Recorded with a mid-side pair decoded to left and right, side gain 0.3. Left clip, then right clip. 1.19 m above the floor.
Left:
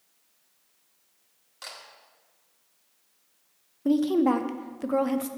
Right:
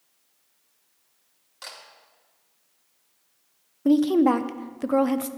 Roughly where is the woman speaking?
Ahead right.